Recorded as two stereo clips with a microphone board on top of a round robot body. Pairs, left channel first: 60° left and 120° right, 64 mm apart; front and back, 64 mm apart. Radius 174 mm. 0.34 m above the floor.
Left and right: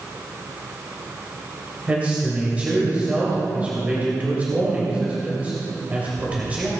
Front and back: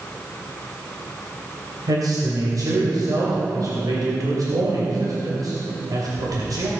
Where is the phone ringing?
No phone ringing in this recording.